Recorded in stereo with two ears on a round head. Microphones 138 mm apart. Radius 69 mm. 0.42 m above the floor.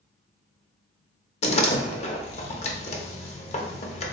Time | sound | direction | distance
1.4 | a door slam | 45° left (ahead or behind) | 0.6 m